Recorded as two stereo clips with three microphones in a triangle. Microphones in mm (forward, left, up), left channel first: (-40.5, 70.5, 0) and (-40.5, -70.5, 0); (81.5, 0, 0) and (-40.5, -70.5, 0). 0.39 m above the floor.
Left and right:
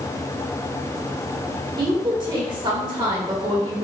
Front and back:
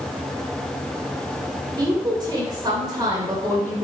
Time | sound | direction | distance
1.8 | a woman speaking | 115° right | 1.7 m